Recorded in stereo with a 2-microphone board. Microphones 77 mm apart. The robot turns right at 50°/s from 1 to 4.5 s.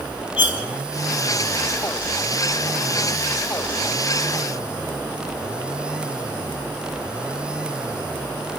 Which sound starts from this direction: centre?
Cutlery clinking, at 0.4 s.